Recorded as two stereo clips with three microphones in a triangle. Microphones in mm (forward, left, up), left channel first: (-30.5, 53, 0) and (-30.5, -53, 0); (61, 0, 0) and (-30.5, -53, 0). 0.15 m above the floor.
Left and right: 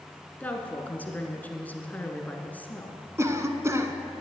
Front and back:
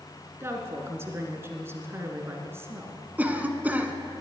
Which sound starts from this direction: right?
A cough, at 3.2 s.